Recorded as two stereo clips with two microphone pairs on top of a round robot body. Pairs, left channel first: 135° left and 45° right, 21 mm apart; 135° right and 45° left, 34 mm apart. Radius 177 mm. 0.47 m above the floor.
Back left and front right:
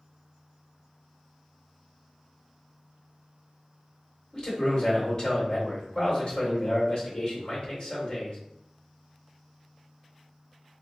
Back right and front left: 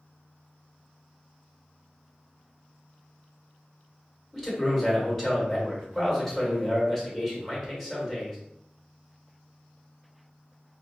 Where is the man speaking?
155° left, 1.7 m.